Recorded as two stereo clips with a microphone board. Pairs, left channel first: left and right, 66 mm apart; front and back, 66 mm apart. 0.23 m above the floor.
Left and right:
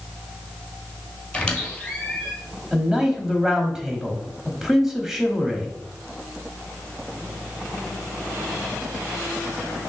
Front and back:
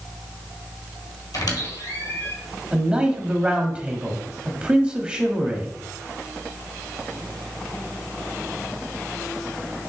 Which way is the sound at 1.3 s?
15° left.